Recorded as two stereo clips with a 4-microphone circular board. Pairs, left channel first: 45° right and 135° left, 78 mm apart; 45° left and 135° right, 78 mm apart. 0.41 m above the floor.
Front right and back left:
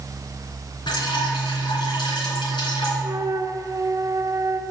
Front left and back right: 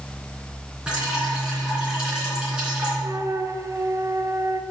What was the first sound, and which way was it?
Dripping, 55° right.